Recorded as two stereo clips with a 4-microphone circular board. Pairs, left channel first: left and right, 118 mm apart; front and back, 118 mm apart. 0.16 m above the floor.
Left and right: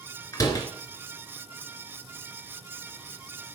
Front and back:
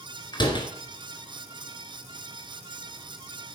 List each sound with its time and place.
0.3 s a door slam: 40° left, 2 m